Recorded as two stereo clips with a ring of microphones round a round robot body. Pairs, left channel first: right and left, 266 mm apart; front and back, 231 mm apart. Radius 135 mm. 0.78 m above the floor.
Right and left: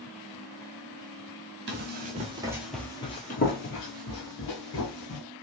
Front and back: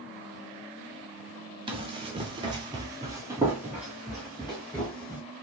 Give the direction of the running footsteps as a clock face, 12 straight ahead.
8 o'clock.